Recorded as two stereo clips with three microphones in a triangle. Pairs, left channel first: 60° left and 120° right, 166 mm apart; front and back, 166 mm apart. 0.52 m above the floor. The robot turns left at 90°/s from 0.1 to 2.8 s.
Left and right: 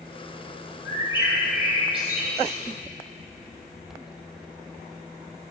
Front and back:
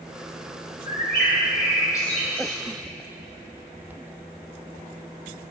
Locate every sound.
0.8 s a bird: 30° left, 2 m; by 2.5 s 120° right, 2 m